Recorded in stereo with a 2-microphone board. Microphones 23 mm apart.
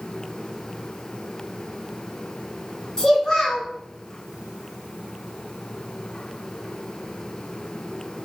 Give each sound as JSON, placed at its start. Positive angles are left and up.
{"t": 3.0, "sound": "a child speaking", "side_deg": 30, "distance_m": 1.3}